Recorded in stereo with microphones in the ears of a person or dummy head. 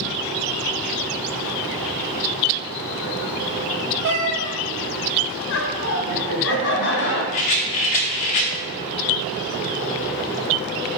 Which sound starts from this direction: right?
A cat meowing, at 4.0 s.